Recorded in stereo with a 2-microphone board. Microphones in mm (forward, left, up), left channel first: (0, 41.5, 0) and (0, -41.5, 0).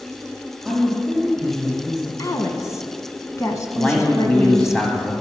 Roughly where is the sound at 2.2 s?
Left.